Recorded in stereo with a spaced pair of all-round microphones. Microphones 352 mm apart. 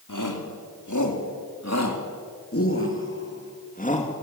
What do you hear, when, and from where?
0.1 s a shout: 60° left (ahead or behind), 4 m; by 4.1 s 20° left (ahead or behind), 2.5 m